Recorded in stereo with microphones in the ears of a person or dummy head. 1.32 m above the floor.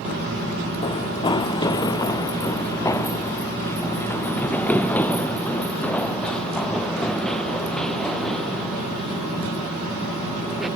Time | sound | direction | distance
0.8 | running footsteps | 25° left (ahead or behind) | ?